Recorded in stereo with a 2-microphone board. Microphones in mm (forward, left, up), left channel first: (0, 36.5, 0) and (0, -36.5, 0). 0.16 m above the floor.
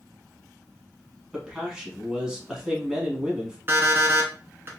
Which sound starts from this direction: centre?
A man speaking, at 1.3 s.